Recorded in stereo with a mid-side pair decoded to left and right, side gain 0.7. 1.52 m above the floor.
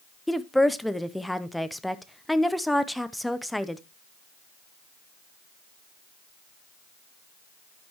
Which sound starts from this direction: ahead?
A woman speaking, at 0.3 s.